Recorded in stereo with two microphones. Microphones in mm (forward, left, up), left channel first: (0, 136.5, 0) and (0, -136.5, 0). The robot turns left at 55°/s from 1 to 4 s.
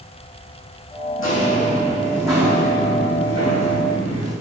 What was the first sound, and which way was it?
Footsteps, 55° left (ahead or behind).